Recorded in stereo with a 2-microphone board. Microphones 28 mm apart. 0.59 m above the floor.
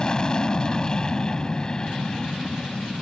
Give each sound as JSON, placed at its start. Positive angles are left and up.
{"t": 0.0, "sound": "an aircraft", "side_deg": 25}